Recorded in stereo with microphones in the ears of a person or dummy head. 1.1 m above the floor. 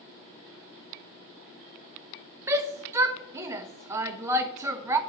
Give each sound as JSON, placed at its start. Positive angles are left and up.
{"t": 2.5, "sound": "a shout", "side_deg": -25, "distance_m": 0.9}